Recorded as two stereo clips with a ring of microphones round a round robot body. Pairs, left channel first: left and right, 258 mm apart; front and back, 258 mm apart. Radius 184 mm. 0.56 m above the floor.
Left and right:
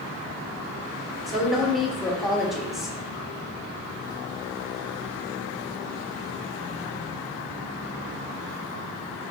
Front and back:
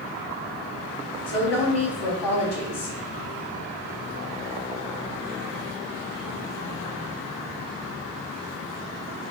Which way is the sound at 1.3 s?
Straight ahead.